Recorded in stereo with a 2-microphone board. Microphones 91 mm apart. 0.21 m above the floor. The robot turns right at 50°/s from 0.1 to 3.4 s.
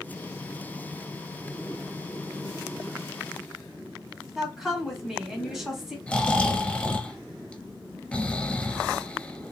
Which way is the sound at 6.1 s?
15° left (ahead or behind).